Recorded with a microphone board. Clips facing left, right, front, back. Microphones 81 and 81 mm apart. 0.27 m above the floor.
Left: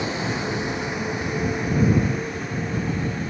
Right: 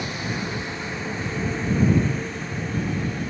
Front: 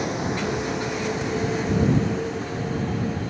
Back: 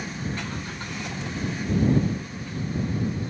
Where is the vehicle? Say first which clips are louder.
Left 3 dB, front 7 dB; 25° left; by 3.3 s 5° left.